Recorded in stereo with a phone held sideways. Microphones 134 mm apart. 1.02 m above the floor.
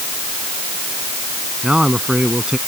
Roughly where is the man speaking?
Centre.